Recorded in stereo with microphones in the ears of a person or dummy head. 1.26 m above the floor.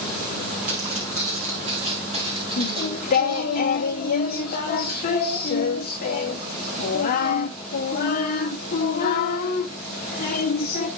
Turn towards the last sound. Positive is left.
turn(degrees=40)  # may be behind; listen again after turning